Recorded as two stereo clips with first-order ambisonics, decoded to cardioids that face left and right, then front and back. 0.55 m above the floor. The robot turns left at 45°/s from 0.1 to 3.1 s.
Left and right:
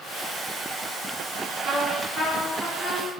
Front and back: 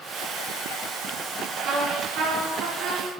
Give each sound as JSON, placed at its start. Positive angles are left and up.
{"t": 1.6, "sound": "a trumpet", "azimuth_deg": -125, "distance_m": 4.0}